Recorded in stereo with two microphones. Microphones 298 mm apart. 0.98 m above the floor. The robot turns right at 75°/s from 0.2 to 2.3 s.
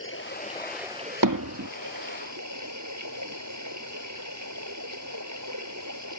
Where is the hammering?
85° right; by 1.7 s 55° right (ahead or behind).